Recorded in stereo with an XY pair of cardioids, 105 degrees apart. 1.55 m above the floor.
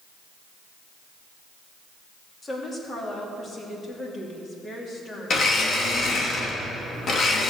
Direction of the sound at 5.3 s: 50° left.